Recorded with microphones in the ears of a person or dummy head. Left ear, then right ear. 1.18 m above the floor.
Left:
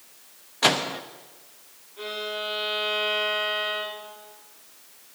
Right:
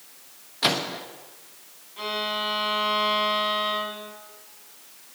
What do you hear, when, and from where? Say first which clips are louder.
0.6 s a microwave: left 2 dB; 20° left (ahead or behind), 0.9 m
2.0 s a violin: right 4 dB; 80° right, 4.5 m